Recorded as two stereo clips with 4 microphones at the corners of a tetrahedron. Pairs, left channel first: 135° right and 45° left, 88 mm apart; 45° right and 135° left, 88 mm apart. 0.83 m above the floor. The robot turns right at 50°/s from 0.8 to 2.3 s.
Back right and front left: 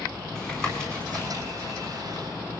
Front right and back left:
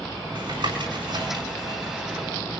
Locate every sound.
0.3 s tapping: 145° left, 7.5 m; by 2.6 s 140° right, 7.5 m